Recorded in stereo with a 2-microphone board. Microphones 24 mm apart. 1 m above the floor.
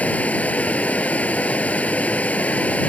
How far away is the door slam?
I don't hear a door slam.